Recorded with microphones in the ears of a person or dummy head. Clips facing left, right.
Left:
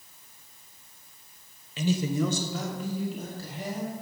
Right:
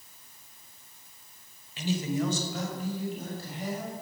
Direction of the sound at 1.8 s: 70° left (ahead or behind).